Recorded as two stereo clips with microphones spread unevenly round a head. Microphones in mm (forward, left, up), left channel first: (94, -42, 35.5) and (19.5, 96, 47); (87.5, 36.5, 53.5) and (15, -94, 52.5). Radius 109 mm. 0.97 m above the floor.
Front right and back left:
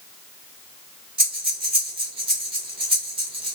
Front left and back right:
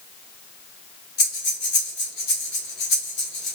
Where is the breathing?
60° left, 2 m.